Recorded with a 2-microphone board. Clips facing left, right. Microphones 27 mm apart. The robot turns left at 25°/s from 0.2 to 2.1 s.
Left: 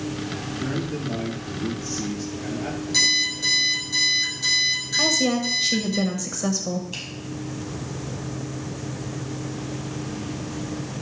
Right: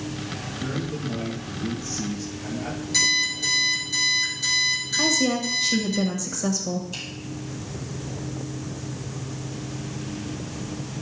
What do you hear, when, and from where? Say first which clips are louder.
0.6 s a man speaking: left 1 dB; 55° left, 4.5 m; by 2.8 s 20° left, 4.5 m
2.9 s an alarm clock: left 1 dB; 5° left (ahead or behind), 6 m
5.0 s a woman speaking: left 1 dB; 20° left (ahead or behind), 0.9 m
6.9 s a finger snap: left 1 dB; 15° left (ahead or behind), 5.5 m